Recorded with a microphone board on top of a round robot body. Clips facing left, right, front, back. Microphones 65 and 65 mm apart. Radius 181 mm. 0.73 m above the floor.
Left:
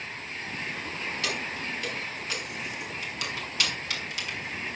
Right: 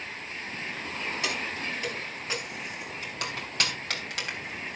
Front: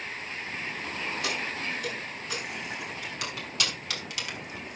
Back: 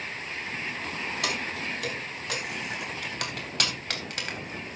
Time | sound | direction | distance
1.2 | keys jangling | 160° right | 5 m